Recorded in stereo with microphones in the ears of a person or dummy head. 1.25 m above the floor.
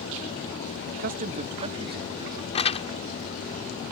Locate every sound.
0.9 s a man speaking: 60° right (ahead or behind); by 2.4 s 25° right (ahead or behind)
2.5 s crumpling: 35° left (ahead or behind)